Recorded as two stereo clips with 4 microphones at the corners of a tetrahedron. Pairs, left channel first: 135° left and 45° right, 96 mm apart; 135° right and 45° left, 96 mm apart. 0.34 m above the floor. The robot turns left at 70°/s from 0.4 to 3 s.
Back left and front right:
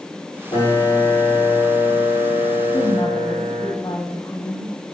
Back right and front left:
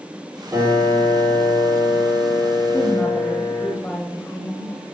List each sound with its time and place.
0.5 s a piano: 105° left, 3.5 m; by 3.7 s 70° right, 3.5 m
2.7 s a woman speaking: straight behind, 1.5 m; by 4.7 s 160° left, 1.5 m